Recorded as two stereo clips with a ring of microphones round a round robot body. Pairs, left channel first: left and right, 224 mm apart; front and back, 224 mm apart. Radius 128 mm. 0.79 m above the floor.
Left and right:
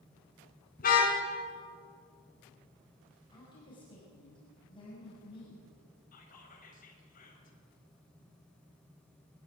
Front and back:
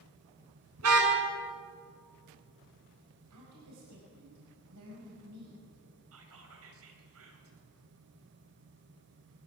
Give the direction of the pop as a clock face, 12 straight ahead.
No pop in this recording.